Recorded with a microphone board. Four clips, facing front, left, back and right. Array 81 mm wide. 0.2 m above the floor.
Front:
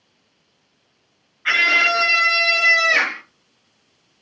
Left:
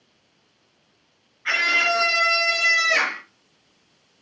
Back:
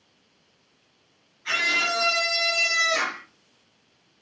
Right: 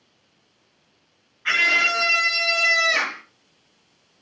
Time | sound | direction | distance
1.4 | a scream | 5° right | 3.5 m